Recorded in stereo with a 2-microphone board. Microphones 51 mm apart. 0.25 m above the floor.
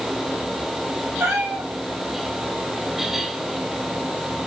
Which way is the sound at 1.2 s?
50° right (ahead or behind).